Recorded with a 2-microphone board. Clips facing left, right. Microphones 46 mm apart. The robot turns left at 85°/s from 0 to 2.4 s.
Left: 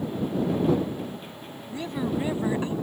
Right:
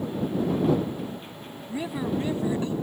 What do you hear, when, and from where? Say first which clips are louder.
1.7 s a woman speaking: even; 150° right; by 2.8 s 145° left